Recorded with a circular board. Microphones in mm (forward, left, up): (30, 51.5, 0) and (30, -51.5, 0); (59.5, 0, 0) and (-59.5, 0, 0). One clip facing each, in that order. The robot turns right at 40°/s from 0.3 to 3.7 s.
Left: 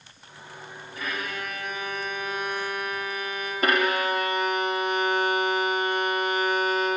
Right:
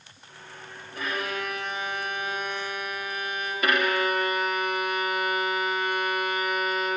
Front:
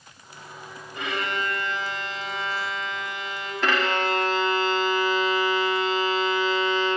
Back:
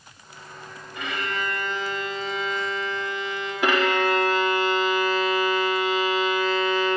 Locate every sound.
0.9 s a violin: 60° right, 3.5 m; by 3.5 s 45° left, 3.5 m
3.6 s a violin: 110° left, 1.1 m; by 7.0 s 115° left, 1.1 m